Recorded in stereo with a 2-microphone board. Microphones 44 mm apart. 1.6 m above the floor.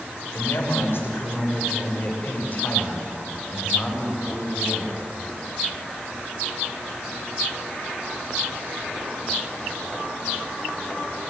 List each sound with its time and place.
0.3 s a man speaking: 70° left (ahead or behind), 5.5 m; by 5.0 s 15° left (ahead or behind), 7.5 m